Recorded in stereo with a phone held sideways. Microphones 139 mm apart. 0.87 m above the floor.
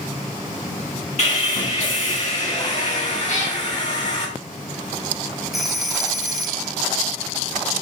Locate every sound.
1.2 s sawing: 55° left (ahead or behind), 5 m
3.3 s a cat meowing: 55° left (ahead or behind), 4.5 m
5.5 s a phone ringing: centre (ahead or behind), 2.5 m